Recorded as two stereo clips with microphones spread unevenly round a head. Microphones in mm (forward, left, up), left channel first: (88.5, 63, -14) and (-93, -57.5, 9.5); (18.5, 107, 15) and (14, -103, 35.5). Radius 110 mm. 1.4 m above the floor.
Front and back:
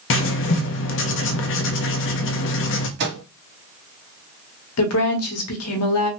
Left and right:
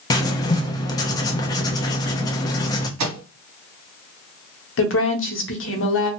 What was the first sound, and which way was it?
Writing, 15° left.